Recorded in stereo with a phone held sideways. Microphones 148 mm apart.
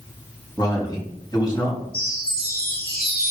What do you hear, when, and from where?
0.6 s a man speaking: 25° left (ahead or behind), 3 m
1.9 s a chime: 80° left, 2.5 m